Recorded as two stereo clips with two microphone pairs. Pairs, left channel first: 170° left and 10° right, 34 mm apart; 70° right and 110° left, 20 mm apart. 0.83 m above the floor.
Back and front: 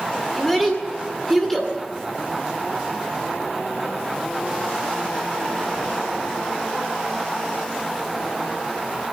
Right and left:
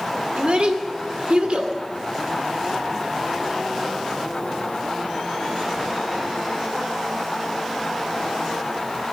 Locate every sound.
0.3 s a child speaking: 85° left, 2.5 m